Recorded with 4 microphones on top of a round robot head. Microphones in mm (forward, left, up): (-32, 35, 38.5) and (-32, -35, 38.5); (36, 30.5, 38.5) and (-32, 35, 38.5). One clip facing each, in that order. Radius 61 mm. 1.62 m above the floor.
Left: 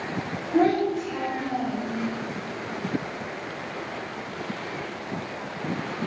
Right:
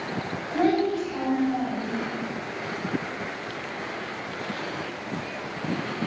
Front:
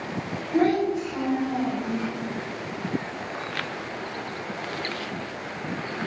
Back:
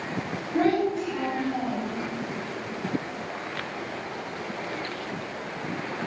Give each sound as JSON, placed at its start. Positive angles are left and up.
{"t": 0.5, "sound": "a child speaking", "azimuth_deg": 65, "distance_m": 1.8}